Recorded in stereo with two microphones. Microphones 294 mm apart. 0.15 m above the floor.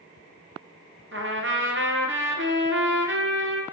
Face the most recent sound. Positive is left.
turn(degrees=-40)  # may be behind; listen again after turning